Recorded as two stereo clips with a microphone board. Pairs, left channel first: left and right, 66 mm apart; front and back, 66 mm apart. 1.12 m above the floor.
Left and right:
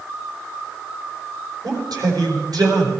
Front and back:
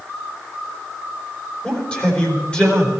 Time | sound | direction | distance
1.6 | a man speaking | 70° right | 4 m